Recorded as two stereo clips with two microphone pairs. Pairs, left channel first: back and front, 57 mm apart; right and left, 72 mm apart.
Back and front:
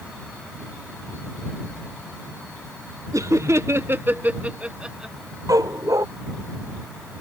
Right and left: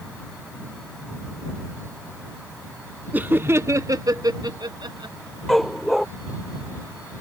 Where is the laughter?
20° left; by 5.2 s 80° left.